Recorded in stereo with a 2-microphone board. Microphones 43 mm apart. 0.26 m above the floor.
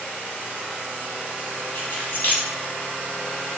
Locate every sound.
1.8 s keys jangling: 40° left (ahead or behind), 1.1 m